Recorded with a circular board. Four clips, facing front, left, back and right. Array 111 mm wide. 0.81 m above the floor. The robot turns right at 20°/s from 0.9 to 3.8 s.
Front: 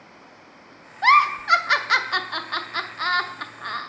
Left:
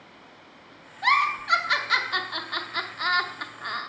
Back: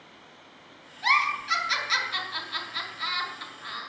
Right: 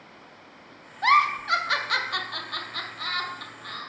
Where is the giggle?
15° right, 0.6 m; by 3.9 s 40° left, 0.6 m.